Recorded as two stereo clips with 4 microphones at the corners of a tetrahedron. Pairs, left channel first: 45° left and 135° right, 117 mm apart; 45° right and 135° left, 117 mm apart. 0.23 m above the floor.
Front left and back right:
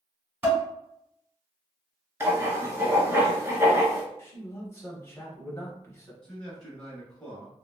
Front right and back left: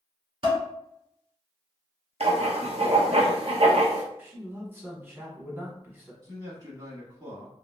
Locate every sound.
0.4 s dishes clattering: 155° left, 1.5 m
2.2 s writing: 160° left, 0.8 m
4.2 s a man speaking: 85° left, 1.1 m
6.2 s a man speaking: 125° left, 1.1 m